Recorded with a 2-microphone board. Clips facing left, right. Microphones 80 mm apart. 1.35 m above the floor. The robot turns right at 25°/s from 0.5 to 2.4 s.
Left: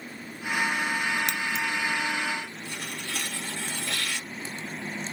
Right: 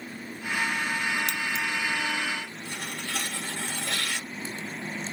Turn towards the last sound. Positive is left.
turn(degrees=-60)  # may be behind; listen again after turning